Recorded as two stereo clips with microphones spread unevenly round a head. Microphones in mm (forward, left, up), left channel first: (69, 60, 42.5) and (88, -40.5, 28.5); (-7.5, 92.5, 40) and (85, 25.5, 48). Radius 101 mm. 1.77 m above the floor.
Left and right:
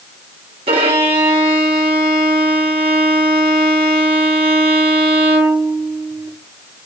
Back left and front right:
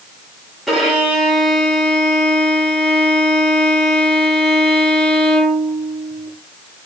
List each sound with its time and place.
0.7 s a violin: 120° right, 1.1 m